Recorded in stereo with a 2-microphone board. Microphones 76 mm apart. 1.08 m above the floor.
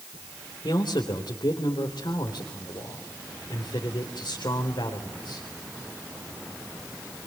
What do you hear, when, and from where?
0.6 s a man speaking: 85° left, 3.5 m